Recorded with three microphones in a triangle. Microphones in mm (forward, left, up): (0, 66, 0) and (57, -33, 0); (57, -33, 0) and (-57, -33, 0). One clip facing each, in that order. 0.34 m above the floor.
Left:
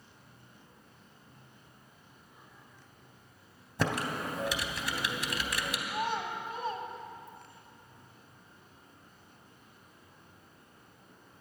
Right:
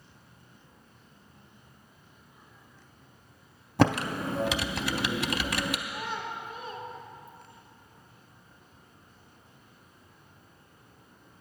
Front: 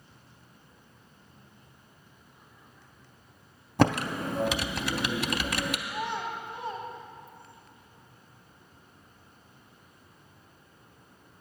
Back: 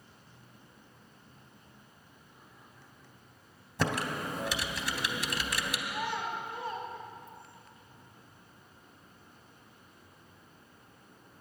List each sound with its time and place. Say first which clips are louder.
3.8 s typing on a keyboard: right 7 dB, front 7 dB; 35° right, 0.5 m
5.9 s a child speaking: left 2 dB, front 2 dB; 70° left, 1.8 m